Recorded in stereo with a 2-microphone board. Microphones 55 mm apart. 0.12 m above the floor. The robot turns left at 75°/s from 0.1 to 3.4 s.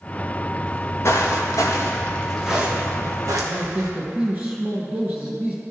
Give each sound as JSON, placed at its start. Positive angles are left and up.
{"t": 0.6, "sound": "footsteps", "side_deg": 15, "distance_m": 1.2}
{"t": 3.4, "sound": "a man speaking", "side_deg": -30, "distance_m": 1.4}